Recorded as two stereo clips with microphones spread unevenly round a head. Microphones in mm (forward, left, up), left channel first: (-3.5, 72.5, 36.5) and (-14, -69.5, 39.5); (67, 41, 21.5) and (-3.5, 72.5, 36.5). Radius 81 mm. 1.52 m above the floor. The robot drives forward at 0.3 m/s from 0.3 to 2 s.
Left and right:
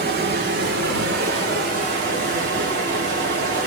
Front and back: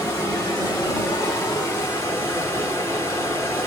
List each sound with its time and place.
0.0 s running water: 110° right, 1.9 m; by 3.7 s 125° right, 2 m